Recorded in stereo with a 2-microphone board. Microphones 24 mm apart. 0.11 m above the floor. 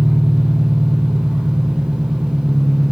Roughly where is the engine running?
Right.